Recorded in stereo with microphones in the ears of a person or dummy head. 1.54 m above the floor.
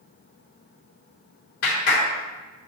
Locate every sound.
1.6 s a clap: 60° left (ahead or behind), 3.5 m